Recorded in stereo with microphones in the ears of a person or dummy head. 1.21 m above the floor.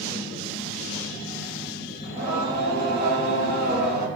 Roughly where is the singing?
Right.